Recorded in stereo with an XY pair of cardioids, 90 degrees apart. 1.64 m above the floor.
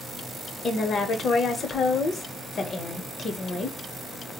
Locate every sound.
0.6 s a woman speaking: 55° left, 0.8 m